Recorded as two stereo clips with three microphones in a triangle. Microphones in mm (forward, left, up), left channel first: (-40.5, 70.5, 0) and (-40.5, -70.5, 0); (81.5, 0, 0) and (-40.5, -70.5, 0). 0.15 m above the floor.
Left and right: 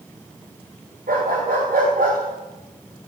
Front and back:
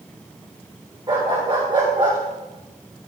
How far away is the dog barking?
About 5.5 m.